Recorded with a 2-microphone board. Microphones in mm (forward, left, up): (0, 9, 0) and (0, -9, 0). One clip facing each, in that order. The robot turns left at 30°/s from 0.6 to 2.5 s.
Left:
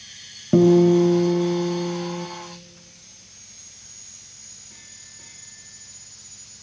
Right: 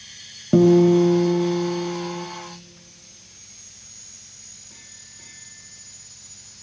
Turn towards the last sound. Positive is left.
turn(degrees=130)